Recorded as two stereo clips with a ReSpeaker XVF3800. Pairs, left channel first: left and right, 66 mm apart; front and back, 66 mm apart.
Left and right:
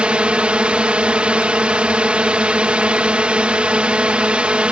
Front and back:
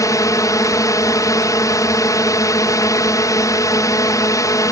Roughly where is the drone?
Ahead.